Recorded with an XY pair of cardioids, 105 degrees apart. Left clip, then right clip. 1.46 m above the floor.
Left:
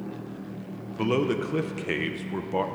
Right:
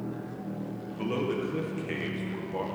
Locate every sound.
1.0 s a man speaking: 50° left, 1.0 m